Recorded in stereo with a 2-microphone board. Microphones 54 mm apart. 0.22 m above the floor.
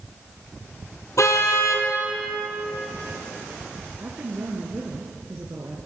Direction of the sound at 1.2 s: 75° left (ahead or behind).